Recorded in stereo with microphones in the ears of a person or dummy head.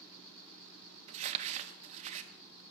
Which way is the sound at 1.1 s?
30° right (ahead or behind).